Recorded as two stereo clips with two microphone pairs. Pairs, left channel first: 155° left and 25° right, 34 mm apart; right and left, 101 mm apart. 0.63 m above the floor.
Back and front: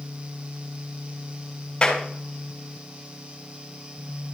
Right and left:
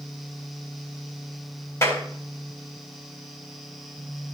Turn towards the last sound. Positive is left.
turn(degrees=-145)